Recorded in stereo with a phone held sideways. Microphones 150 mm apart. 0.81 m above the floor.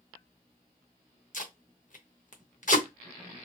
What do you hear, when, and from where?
1.3 s tape being pulled: 60° left (ahead or behind), 0.7 m